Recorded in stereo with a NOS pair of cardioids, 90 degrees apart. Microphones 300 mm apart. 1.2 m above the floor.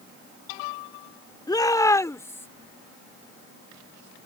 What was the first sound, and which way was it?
A shout, 15° left.